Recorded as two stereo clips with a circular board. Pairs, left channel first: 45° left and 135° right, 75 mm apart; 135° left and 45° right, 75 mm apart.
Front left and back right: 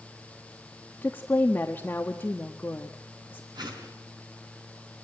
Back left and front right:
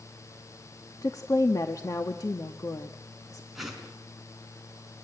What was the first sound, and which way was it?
A woman speaking, 105° left.